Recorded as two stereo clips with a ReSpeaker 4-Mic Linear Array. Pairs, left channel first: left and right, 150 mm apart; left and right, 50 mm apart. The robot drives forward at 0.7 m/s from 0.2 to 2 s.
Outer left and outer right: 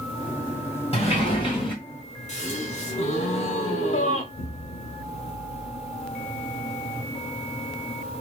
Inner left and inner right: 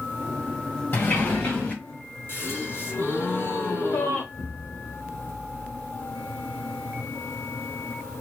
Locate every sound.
0.9 s a sliding door: 40° left (ahead or behind), 2 m; by 1.7 s 35° left (ahead or behind), 2.5 m
2.3 s a gasp: 50° left (ahead or behind), 1.5 m
4.3 s an explosion: 75° left (ahead or behind), 0.6 m